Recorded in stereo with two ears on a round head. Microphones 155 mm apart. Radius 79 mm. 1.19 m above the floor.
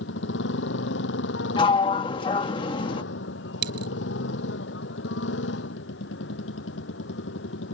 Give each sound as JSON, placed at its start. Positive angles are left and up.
{"t": 0.0, "sound": "a motorcycle", "side_deg": 70}
{"t": 1.6, "sound": "a sliding door", "side_deg": 25}
{"t": 3.6, "sound": "a dropped coin", "side_deg": -65}